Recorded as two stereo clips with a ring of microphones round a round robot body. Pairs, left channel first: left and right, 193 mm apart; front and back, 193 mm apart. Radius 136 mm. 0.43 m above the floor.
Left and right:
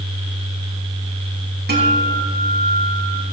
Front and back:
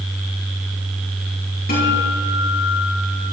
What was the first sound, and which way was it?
A guitar, 55° right.